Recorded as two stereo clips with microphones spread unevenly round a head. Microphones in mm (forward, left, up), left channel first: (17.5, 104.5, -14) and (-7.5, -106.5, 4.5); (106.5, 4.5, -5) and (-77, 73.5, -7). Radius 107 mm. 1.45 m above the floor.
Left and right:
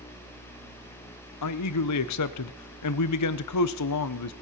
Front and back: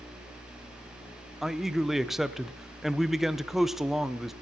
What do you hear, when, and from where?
1.4 s a man speaking: 70° left, 0.8 m